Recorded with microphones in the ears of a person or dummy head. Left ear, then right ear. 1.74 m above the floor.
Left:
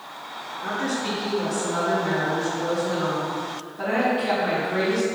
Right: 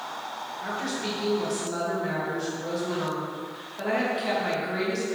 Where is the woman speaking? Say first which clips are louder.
Left 5 dB; 60° right (ahead or behind), 2 m.